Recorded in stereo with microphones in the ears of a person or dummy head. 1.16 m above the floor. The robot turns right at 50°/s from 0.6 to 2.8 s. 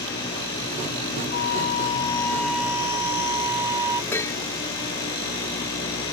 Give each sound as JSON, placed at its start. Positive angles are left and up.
{"t": 1.3, "sound": "a flute", "azimuth_deg": 120}
{"t": 4.1, "sound": "dishes clattering", "side_deg": 10}